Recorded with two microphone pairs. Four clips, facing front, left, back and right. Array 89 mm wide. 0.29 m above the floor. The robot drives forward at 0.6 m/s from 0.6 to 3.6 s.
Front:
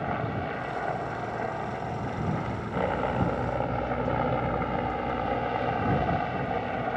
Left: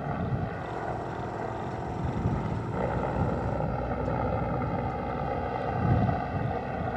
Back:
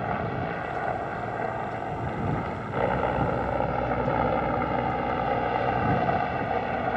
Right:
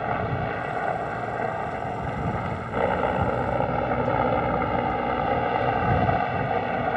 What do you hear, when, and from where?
0.0 s a helicopter: 110° right; by 7.0 s 115° right